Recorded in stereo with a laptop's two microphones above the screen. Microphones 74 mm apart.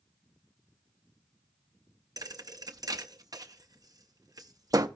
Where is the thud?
55° right (ahead or behind), 0.6 m.